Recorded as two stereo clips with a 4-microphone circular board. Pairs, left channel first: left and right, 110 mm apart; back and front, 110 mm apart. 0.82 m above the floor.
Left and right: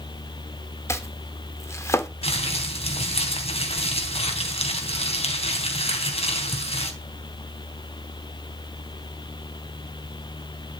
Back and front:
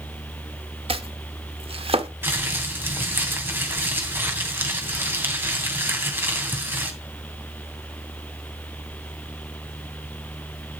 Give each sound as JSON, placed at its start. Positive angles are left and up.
{"t": 0.9, "sound": "chopping", "azimuth_deg": 25, "distance_m": 1.3}
{"t": 2.2, "sound": "crumpling", "azimuth_deg": 70, "distance_m": 3.0}